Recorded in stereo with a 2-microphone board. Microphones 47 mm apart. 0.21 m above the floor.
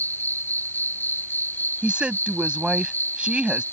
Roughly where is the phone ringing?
I don't hear a phone ringing.